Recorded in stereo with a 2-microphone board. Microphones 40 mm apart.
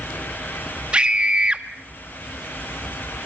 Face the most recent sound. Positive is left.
turn(degrees=-25)  # may be behind; listen again after turning